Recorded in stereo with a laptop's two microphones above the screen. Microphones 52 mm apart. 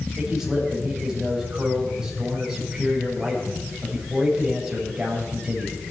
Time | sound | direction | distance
0.2 | a man speaking | 15° right (ahead or behind) | 5 m